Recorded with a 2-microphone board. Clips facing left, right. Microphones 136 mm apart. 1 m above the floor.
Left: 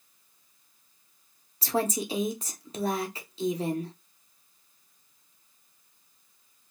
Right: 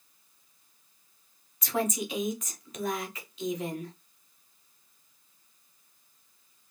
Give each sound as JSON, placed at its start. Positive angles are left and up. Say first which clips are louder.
{"t": 1.6, "sound": "a woman speaking", "louder": "left 2 dB", "side_deg": 30, "distance_m": 0.7}